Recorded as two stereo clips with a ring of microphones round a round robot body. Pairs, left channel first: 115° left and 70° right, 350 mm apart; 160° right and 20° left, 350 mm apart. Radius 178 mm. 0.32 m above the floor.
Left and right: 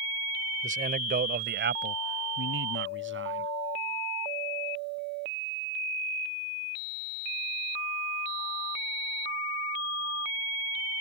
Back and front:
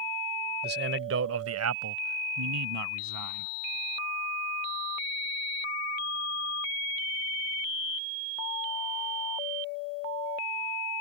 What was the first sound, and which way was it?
A man speaking, 15° right.